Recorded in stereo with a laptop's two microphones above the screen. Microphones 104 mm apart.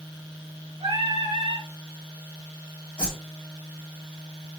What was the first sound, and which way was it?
Singing, 70° right (ahead or behind).